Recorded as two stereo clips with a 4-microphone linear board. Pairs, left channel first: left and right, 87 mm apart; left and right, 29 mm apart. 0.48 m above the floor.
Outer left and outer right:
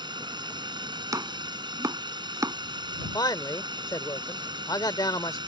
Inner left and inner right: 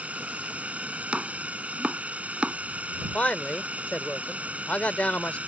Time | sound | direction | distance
0.0 | a drone | 60° right (ahead or behind) | ?
1.1 | chopping | 40° right (ahead or behind) | ?
3.0 | a man speaking | 50° left (ahead or behind) | ?